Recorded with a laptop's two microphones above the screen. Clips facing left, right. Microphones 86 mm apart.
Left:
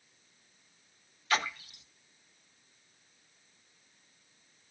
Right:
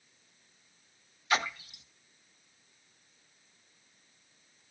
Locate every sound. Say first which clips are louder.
1.3 s a splash: right 1 dB; 20° right (ahead or behind), 1.0 m